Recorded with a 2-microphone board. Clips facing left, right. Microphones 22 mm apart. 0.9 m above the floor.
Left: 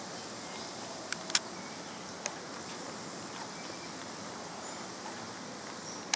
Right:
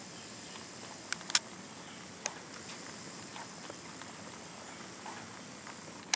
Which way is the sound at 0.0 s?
75° left (ahead or behind).